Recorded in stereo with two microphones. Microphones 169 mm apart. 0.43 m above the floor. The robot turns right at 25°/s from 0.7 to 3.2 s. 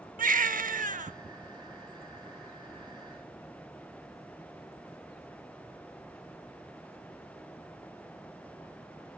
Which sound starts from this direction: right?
A baby crying, at 0.2 s.